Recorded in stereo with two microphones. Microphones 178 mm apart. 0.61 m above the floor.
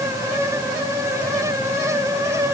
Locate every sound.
Only background noise.